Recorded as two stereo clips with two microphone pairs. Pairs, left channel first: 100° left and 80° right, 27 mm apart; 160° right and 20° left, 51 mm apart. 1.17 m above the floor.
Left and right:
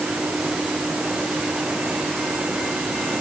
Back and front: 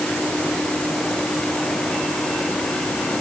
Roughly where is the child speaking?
I don't hear a child speaking.